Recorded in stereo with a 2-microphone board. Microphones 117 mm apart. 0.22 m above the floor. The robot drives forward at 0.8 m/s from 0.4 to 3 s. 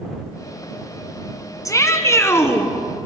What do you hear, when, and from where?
1.6 s a shout: 30° left (ahead or behind), 2 m; by 2.7 s 20° left (ahead or behind), 3 m